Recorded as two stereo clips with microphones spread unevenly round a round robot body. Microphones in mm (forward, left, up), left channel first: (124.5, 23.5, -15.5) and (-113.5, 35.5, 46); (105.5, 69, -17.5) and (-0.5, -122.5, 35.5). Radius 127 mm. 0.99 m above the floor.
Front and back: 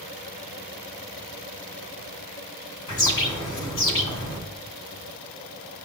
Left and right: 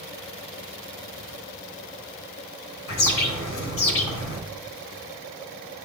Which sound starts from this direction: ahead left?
A bird, at 2.9 s.